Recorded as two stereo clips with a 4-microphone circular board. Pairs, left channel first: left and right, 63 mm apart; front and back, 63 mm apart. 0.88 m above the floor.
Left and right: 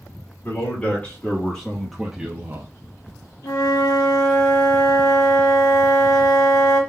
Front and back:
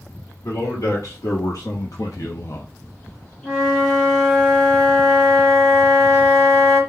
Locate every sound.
0.4 s a man speaking: 35° left, 1.9 m; by 2.7 s 55° right, 0.7 m
3.4 s a flute: 90° left, 1.9 m